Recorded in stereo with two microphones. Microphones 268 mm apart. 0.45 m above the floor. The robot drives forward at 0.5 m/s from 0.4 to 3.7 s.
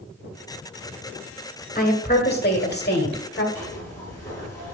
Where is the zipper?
10° left (ahead or behind), 3 m.